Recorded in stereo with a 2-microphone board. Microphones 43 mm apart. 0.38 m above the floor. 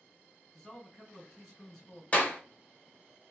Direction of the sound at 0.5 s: Centre (ahead or behind).